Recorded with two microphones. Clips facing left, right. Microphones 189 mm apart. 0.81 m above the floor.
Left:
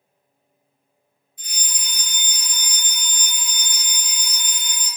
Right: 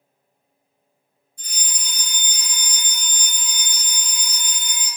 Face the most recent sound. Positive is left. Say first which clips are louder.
# even
turn(degrees=-45)  # may be behind; listen again after turning